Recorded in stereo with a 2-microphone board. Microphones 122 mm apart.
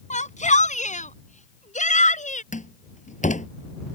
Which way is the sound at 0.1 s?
80° left.